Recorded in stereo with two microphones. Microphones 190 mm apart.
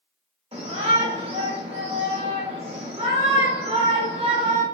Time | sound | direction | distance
0.5 | a shout | 30° right (ahead or behind) | 1.6 m